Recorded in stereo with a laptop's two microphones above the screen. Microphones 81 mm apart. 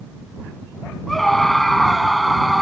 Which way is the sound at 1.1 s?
5° left (ahead or behind).